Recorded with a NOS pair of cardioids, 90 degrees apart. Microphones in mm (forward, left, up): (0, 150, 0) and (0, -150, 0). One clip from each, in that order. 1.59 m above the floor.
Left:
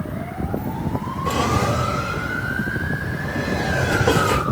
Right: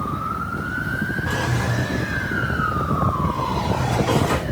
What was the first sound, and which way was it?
A drawer, 65° left.